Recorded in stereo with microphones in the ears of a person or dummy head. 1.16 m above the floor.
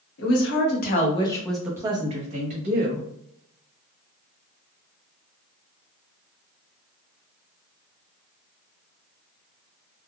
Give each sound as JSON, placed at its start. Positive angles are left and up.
{"t": 0.2, "sound": "a woman speaking", "side_deg": 70, "distance_m": 1.2}